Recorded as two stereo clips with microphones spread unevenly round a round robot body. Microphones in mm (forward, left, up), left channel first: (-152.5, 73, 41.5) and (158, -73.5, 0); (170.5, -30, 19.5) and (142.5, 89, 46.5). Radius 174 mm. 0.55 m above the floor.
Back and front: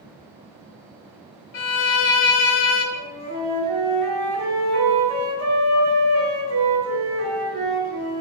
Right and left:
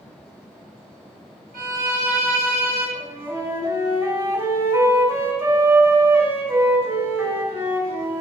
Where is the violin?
150° left, 1.0 m.